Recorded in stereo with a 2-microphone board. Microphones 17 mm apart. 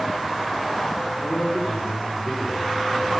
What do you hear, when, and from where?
1.1 s a man speaking: 60° left (ahead or behind), 2.0 m